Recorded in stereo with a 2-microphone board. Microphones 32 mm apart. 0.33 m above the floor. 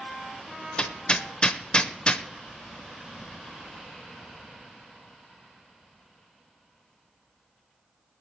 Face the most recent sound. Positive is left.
turn(degrees=25)  # may be behind; listen again after turning